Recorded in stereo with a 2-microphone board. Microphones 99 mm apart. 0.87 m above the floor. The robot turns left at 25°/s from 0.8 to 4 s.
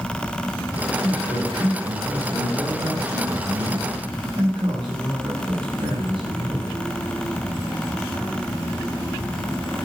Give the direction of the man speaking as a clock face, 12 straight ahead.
11 o'clock.